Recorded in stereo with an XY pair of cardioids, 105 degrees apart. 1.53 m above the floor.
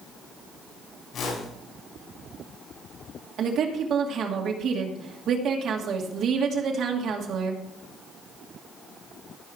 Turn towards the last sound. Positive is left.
turn(degrees=-65)